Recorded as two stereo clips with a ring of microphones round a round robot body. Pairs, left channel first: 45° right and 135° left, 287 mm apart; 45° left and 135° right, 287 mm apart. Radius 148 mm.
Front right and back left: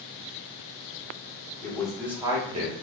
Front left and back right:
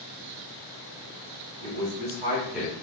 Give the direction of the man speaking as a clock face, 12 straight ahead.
4 o'clock.